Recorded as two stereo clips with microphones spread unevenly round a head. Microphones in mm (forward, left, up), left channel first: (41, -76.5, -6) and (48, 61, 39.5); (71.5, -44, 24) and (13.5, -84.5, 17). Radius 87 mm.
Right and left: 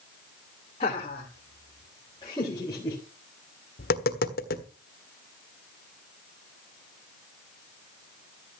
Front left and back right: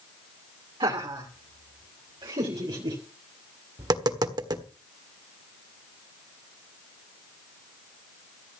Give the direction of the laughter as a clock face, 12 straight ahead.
5 o'clock.